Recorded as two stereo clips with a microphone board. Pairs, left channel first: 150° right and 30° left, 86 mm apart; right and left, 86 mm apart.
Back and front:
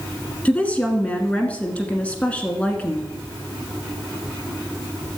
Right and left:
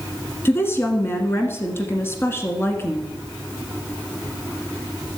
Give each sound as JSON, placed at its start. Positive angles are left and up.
{"t": 0.5, "sound": "a woman speaking", "azimuth_deg": -95, "distance_m": 1.3}